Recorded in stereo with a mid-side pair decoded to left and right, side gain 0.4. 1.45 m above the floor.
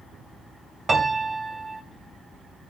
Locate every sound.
0.9 s a piano: 35° right, 3.5 m